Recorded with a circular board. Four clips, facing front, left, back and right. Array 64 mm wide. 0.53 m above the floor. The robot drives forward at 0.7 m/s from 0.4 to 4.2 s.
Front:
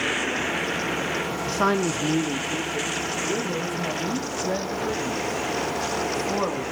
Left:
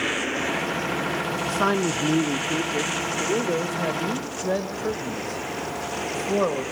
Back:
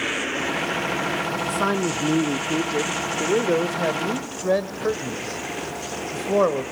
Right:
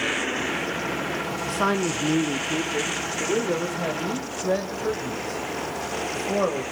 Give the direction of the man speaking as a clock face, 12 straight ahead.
12 o'clock.